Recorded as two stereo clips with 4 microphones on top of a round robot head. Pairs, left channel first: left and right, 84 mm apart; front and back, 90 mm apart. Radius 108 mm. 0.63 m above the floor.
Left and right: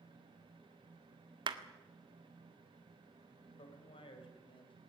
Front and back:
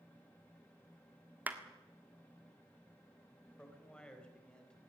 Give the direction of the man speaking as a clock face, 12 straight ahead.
9 o'clock.